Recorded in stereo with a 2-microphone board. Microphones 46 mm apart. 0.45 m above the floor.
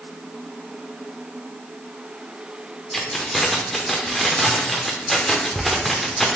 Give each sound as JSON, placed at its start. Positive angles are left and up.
{"t": 2.9, "sound": "keys jangling", "side_deg": 5, "distance_m": 0.5}